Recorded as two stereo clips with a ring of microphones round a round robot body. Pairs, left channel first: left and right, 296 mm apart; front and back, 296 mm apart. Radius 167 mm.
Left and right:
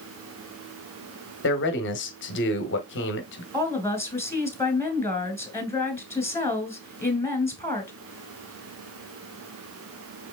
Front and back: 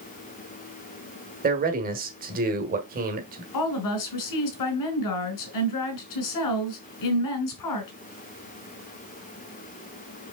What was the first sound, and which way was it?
A man speaking, 125° left.